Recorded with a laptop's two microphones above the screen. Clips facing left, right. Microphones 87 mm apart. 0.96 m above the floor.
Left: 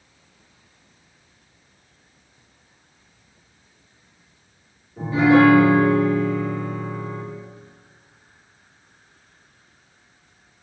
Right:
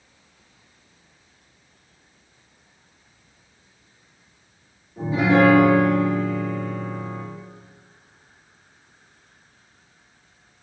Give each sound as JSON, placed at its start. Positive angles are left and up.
{"t": 5.0, "sound": "a piano", "side_deg": -20, "distance_m": 1.7}